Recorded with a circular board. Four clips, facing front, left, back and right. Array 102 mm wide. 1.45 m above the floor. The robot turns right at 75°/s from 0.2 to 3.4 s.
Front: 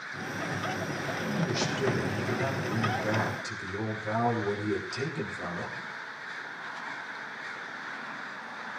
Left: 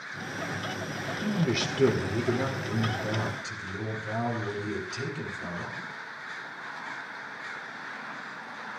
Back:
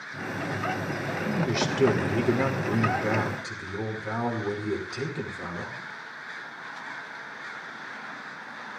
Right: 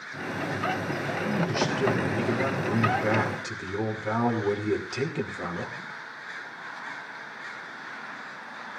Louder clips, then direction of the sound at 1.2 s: Right 1 dB, back 4 dB; 95° left.